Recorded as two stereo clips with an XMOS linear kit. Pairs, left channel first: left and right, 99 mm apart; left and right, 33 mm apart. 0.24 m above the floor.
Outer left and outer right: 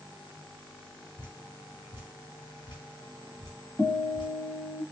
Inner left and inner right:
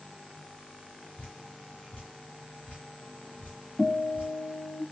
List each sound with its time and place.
1.2 s dripping: 55° left (ahead or behind), 1.6 m
3.8 s a guitar: 35° left (ahead or behind), 1.0 m